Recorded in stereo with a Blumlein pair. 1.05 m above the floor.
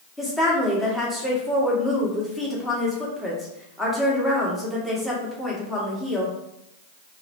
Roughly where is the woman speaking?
Ahead.